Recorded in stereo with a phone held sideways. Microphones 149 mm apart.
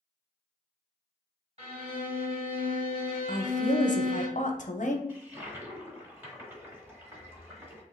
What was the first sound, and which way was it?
A violin, 40° right (ahead or behind).